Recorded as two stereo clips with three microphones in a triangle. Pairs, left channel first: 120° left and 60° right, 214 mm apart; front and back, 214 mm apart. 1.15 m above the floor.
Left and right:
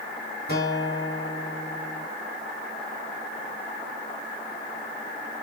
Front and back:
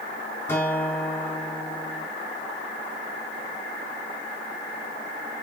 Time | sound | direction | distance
0.5 | a guitar | 80° left | 5 m